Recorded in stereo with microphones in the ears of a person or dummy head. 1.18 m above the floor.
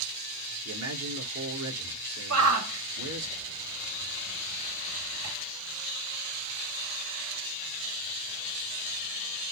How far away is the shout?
About 2 m.